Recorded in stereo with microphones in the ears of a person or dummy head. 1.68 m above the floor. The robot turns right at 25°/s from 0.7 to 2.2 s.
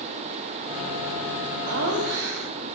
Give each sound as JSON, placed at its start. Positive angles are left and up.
{"t": 1.7, "sound": "laughter", "side_deg": -50, "distance_m": 1.1}